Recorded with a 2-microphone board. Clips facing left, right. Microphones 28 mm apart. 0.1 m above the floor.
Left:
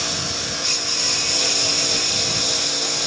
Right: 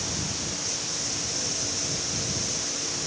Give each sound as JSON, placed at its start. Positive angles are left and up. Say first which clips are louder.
{"t": 0.0, "sound": "a lawn mower", "louder": "left 7 dB", "side_deg": 75}